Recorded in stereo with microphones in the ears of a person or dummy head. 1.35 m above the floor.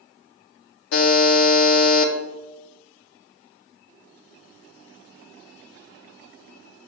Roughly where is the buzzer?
Left.